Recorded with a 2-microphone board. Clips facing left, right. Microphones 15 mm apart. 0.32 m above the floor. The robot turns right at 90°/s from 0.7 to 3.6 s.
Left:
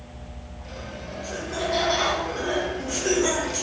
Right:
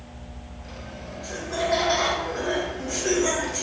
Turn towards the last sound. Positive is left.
turn(degrees=35)